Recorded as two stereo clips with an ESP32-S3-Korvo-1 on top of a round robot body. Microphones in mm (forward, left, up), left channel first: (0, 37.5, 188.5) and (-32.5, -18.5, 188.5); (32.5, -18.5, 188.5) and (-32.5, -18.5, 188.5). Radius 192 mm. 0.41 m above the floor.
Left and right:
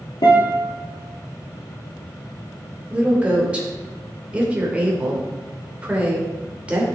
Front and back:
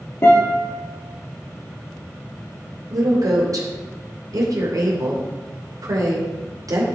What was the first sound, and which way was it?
A guitar, 55° left.